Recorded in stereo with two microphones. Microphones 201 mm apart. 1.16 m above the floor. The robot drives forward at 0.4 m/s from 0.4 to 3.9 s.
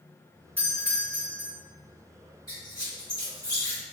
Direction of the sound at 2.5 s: 20° left (ahead or behind).